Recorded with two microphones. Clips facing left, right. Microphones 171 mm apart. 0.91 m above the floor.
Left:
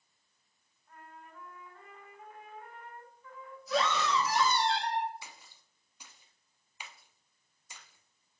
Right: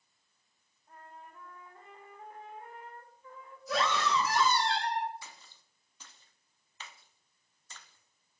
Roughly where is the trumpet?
Right.